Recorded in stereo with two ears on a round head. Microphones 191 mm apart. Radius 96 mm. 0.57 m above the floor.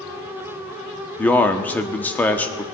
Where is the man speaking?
10° left (ahead or behind), 0.9 m.